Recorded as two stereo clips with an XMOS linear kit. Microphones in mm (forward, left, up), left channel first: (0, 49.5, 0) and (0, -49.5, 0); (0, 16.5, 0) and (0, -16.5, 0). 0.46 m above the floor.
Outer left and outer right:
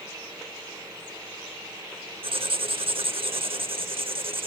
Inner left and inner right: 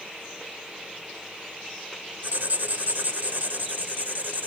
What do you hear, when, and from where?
2.2 s writing: 65° right (ahead or behind), 0.7 m